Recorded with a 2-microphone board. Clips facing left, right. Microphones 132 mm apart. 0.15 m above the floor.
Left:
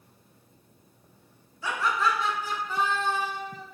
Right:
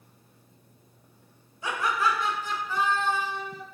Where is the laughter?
25° right (ahead or behind), 1.6 m; by 3.6 s 45° left (ahead or behind), 2 m.